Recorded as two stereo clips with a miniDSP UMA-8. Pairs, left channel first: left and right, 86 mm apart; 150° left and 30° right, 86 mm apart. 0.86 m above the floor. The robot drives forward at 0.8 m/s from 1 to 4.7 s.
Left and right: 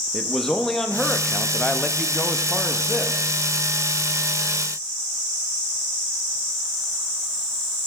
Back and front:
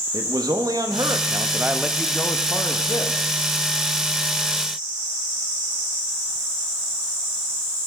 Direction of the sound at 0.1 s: 5° left.